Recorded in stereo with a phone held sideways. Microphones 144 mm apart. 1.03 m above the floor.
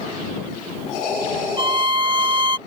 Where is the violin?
35° right (ahead or behind).